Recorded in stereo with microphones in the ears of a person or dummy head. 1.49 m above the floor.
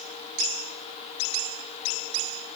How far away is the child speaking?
No child speaking in this recording.